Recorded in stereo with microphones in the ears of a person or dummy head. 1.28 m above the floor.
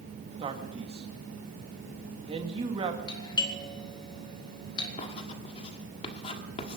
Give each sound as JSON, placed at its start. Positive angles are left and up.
{"t": 0.4, "sound": "a man speaking", "side_deg": -25, "distance_m": 1.9}
{"t": 3.1, "sound": "a doorbell", "side_deg": 25, "distance_m": 2.0}
{"t": 5.0, "sound": "writing", "side_deg": 30, "distance_m": 1.5}